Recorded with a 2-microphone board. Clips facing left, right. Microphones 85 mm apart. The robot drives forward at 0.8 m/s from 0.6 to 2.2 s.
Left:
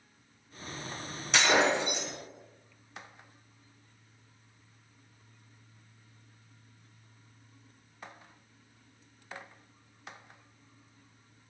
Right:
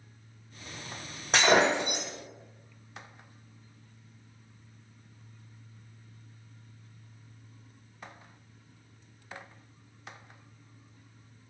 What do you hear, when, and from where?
1.3 s breaking glass: 45° right (ahead or behind), 2.5 m; by 2.1 s 60° right (ahead or behind), 1.9 m